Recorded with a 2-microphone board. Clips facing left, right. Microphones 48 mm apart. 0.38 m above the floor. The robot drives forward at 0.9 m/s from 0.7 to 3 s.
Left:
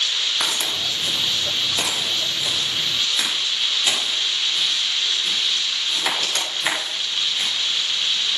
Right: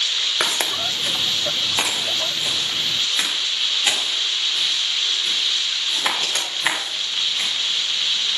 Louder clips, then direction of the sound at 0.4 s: Right 2 dB; 60° right (ahead or behind).